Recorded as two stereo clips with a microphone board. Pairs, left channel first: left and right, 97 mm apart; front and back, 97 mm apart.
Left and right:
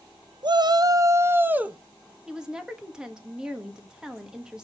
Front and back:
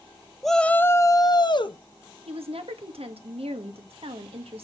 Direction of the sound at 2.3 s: 175° right.